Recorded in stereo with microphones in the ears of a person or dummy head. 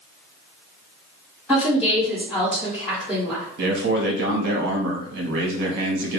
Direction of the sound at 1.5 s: 5° left (ahead or behind).